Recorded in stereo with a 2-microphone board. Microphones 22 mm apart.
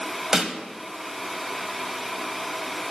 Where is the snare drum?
25° right (ahead or behind), 1.3 m.